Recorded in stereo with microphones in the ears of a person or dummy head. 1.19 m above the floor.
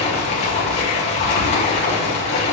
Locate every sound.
0.0 s running water: 35° left (ahead or behind), 0.8 m